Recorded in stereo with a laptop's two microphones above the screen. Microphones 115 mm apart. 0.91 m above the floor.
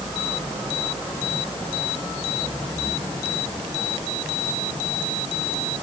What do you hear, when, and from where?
Only background noise.